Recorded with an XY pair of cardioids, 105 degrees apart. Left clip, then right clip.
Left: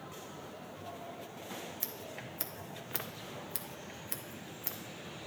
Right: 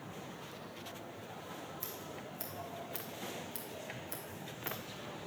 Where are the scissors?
50° left, 1.0 m.